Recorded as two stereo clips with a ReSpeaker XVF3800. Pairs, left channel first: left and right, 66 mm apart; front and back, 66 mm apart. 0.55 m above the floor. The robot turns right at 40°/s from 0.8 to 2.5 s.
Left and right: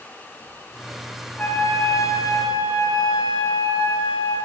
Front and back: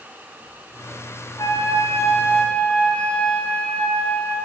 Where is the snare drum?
No snare drum in this recording.